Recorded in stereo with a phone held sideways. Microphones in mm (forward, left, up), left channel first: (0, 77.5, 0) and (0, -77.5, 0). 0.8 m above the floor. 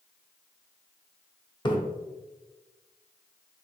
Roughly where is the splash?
Left.